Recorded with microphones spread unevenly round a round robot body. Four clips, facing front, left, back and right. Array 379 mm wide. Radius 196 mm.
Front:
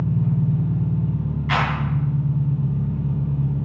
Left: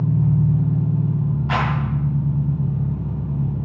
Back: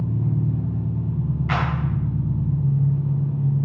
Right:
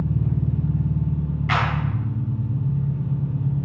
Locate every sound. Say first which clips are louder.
0.0 s an engine running: left 5 dB, front 2 dB; 85° left, 2 m
1.5 s a clap: even, front 4 dB; 135° right, 2.5 m